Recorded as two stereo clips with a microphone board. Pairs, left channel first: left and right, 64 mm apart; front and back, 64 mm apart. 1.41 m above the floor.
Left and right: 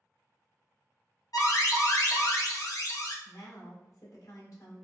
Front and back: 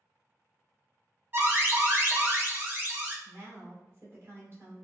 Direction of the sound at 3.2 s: 130° left.